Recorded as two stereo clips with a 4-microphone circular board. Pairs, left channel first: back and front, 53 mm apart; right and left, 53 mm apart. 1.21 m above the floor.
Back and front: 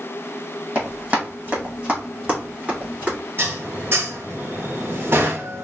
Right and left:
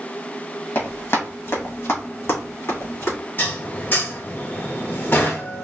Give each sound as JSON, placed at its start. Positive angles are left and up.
{"t": 0.8, "sound": "running footsteps", "azimuth_deg": -60, "distance_m": 2.0}
{"t": 3.4, "sound": "dishes clattering", "azimuth_deg": -45, "distance_m": 0.8}